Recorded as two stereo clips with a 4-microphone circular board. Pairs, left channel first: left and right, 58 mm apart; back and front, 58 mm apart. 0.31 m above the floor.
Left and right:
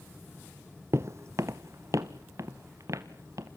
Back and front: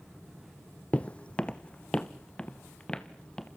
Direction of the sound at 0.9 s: 115° right.